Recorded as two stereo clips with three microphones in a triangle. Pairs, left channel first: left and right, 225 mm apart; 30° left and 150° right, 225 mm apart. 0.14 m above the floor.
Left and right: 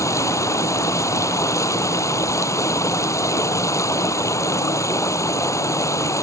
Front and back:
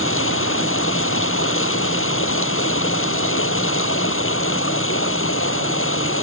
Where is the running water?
15° left.